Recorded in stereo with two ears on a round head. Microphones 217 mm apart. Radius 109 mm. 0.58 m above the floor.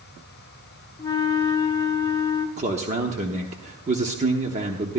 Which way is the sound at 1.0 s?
15° left (ahead or behind).